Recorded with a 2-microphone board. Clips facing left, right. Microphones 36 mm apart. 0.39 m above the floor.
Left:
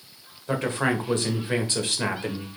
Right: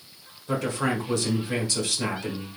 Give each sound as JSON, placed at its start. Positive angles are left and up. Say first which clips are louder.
{"t": 0.5, "sound": "a man speaking", "louder": "left 2 dB", "side_deg": 35, "distance_m": 1.1}